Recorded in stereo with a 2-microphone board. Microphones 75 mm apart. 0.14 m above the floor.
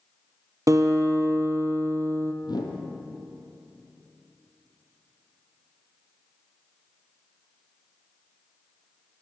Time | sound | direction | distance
0.7 | a guitar | 45° right (ahead or behind) | 0.6 m
2.4 | a whoosh | 65° left (ahead or behind) | 0.8 m